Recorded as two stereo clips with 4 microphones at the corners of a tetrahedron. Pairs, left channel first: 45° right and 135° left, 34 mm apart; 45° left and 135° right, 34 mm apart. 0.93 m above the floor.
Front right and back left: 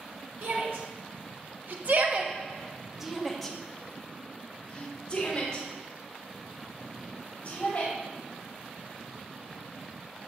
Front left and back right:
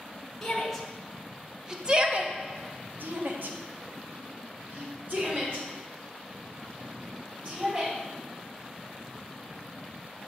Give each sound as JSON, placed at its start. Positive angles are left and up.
{"t": 0.4, "sound": "a shout", "azimuth_deg": 125, "distance_m": 2.0}